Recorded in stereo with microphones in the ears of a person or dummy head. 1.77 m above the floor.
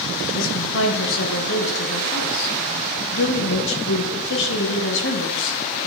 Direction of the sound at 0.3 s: 70° left (ahead or behind).